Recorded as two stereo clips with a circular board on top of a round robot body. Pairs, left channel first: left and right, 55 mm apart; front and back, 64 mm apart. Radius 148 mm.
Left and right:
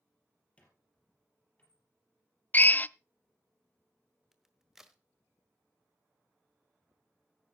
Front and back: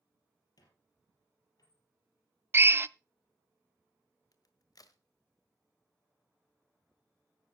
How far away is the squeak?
About 3.5 m.